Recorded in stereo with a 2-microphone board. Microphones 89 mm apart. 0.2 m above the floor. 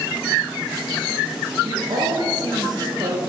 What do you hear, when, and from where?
1.6 s a woman speaking: 50° right (ahead or behind), 2 m